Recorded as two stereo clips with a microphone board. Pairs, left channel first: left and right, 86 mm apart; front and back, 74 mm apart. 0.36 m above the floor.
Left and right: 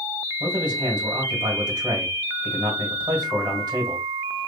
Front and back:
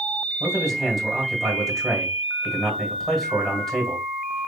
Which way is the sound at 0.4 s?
85° right.